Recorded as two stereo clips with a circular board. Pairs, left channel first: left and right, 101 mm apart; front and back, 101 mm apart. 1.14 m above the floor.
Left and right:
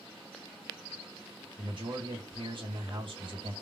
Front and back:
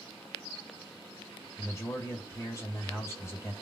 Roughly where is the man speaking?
Ahead right.